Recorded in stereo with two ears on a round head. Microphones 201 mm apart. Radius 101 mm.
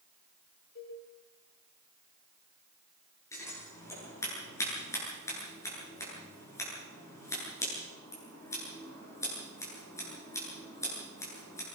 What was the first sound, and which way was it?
A cowbell, 45° left (ahead or behind).